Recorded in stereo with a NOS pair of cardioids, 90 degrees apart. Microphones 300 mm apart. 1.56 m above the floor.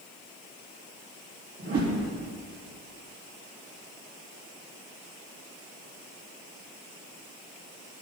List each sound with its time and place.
1.6 s a whoosh: 50° right, 3 m